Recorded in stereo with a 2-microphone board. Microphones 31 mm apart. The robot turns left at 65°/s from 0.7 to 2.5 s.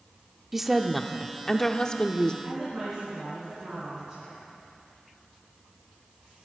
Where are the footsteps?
I don't hear footsteps.